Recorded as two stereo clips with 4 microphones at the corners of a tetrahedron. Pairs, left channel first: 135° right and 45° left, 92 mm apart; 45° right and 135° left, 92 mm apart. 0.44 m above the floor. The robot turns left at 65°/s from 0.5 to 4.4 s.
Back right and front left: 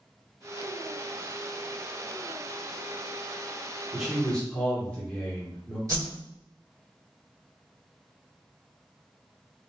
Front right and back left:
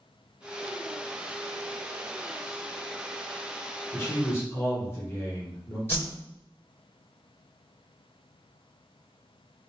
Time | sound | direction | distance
3.9 | a man speaking | 40° right | 1.2 m
5.9 | a whoosh | 5° left | 1.8 m